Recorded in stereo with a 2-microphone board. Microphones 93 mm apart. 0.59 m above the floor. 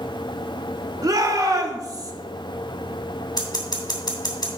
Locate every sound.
1.0 s a shout: 45° right (ahead or behind), 1.4 m
3.4 s scissors: 45° left (ahead or behind), 2.5 m